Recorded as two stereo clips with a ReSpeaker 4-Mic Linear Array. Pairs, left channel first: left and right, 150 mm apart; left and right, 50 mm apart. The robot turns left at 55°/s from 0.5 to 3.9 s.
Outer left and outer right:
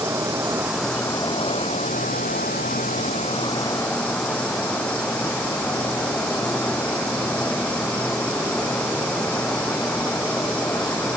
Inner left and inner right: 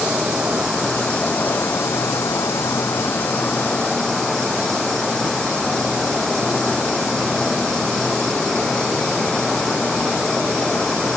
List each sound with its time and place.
0.0 s an insect: 165° right; by 11.2 s 10° left